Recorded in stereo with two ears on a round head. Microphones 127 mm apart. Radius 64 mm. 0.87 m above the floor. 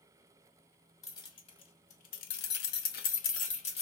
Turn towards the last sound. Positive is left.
turn(degrees=45)  # may be behind; listen again after turning